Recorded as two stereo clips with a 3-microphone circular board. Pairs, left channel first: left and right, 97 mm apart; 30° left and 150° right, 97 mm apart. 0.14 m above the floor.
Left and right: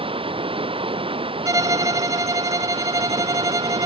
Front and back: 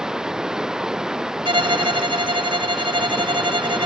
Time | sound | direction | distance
0.0 | running water | 65° right | ?
1.4 | a violin | 140° right | ?